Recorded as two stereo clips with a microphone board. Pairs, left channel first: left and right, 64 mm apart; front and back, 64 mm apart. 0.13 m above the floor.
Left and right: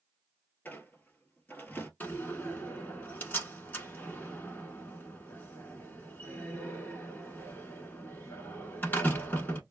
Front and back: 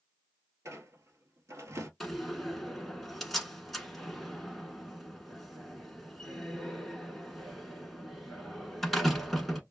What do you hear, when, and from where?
0.7 s a squeak: 145° left, 0.8 m
2.0 s a door slam: 85° left, 0.9 m